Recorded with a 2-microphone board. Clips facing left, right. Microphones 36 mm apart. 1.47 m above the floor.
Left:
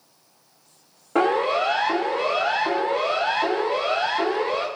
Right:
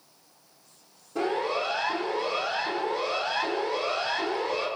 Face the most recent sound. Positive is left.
turn(degrees=45)  # may be behind; listen again after turning